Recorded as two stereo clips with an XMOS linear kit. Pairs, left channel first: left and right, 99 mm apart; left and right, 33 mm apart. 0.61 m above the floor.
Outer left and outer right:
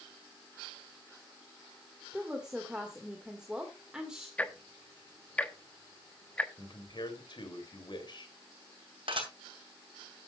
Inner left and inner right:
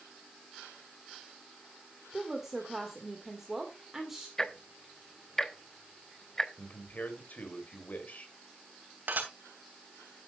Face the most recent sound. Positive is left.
turn(degrees=-60)  # may be behind; listen again after turning